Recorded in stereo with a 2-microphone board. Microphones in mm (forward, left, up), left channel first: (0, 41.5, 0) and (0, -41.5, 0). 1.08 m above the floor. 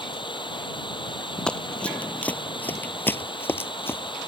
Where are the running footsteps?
10° left (ahead or behind); by 4.3 s 25° left (ahead or behind).